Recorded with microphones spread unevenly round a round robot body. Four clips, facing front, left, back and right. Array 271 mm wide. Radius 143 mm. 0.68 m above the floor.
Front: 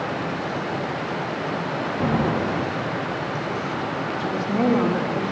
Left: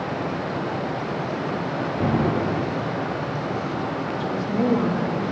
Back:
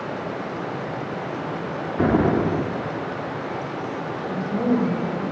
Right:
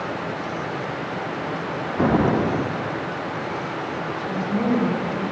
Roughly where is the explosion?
Behind right.